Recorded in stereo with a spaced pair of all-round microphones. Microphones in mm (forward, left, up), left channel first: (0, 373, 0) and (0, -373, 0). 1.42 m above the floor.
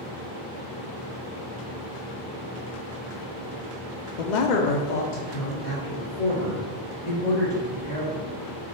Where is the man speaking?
70° left (ahead or behind), 0.6 m; by 8.2 s 25° left (ahead or behind), 2.5 m.